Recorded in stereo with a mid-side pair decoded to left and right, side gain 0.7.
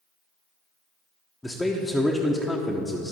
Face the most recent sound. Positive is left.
turn(degrees=10)